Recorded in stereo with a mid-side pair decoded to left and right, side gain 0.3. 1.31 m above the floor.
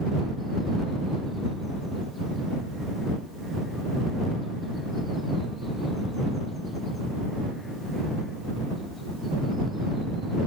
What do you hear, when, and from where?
Only background noise.